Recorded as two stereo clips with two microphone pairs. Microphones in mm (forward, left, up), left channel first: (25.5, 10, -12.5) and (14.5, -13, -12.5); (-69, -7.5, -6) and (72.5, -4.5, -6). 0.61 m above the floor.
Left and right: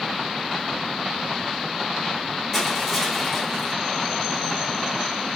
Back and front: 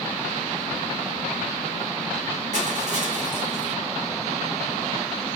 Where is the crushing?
20° right, 1.9 m.